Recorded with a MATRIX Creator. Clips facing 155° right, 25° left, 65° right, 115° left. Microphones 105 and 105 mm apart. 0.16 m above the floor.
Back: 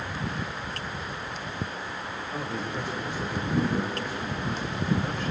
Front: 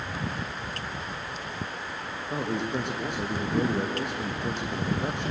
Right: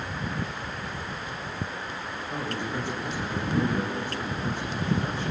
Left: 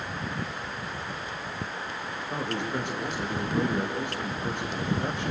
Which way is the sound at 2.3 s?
40° left.